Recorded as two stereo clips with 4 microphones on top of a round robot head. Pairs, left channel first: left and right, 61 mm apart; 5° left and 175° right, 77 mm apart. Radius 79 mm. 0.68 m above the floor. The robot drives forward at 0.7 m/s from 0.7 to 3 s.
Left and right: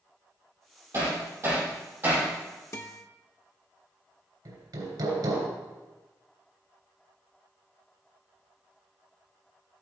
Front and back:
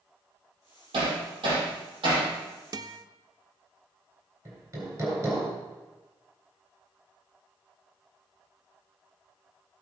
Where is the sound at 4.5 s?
115° right, 3 m.